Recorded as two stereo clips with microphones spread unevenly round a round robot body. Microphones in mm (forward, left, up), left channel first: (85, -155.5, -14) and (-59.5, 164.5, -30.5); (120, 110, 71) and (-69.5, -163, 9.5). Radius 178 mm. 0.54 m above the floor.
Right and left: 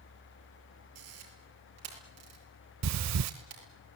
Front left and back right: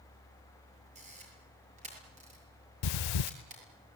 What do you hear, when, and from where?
0.9 s a camera shutter: 165° left, 6.5 m
2.8 s breathing: 65° left, 0.5 m